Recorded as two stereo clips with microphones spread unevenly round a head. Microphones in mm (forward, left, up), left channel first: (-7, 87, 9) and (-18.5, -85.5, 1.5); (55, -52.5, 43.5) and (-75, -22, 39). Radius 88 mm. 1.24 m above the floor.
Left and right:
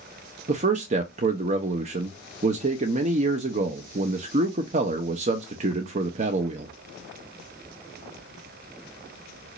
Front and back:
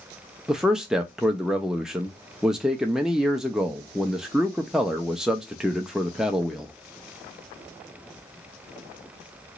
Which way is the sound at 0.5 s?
110° right.